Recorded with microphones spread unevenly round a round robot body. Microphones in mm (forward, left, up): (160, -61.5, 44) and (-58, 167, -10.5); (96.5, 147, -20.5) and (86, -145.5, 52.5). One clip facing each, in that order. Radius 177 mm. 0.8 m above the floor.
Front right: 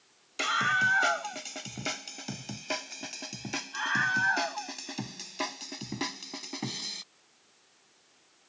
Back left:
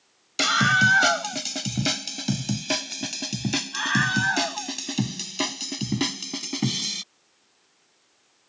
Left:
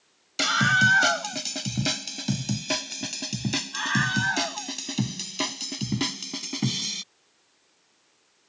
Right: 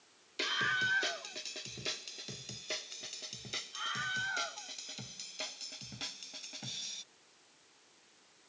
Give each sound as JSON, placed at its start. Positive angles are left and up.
{"t": 0.4, "sound": "a scream", "azimuth_deg": 115}